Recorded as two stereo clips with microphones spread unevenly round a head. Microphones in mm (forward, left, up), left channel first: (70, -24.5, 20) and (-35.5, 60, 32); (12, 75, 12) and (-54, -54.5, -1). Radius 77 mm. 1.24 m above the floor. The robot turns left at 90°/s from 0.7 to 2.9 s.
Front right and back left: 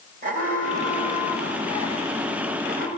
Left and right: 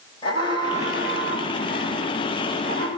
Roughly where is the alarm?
Behind left.